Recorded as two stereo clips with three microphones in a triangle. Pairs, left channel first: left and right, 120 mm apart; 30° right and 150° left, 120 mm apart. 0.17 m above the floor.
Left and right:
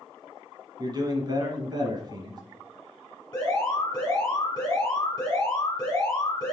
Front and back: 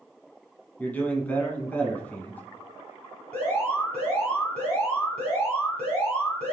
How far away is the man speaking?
About 1.3 m.